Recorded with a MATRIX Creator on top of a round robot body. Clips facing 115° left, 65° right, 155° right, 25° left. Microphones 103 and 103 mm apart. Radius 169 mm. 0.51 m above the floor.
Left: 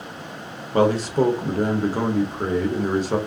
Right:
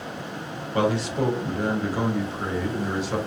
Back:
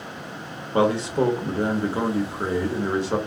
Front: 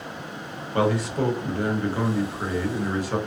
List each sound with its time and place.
0.7 s a man speaking: 145° left, 1.1 m